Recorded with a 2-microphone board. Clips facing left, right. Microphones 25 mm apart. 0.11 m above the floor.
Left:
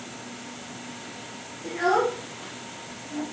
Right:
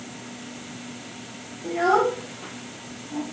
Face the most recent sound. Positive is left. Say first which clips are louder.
# right 3 dB
turn(degrees=5)  # may be behind; listen again after turning